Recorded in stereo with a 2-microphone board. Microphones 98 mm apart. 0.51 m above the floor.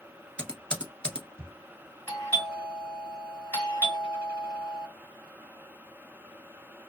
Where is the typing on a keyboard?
10° left (ahead or behind), 1.2 m.